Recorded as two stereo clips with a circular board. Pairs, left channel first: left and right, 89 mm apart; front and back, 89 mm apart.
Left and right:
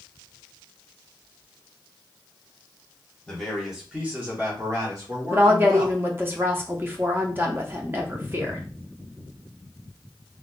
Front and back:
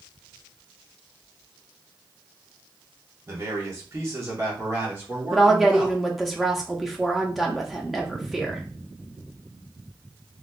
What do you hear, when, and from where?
3.3 s a man speaking: 170° left, 1.3 m; by 6.0 s 115° right, 2 m
5.3 s a woman speaking: 90° right, 0.7 m